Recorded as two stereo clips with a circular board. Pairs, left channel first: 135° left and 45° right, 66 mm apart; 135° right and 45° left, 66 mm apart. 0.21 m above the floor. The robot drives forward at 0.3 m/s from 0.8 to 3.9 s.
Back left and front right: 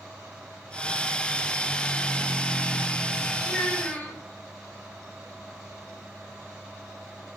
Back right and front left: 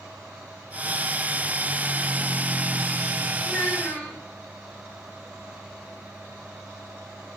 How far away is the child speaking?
About 1.2 m.